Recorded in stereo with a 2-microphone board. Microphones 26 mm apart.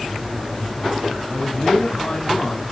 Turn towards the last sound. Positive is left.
turn(degrees=50)  # may be behind; listen again after turning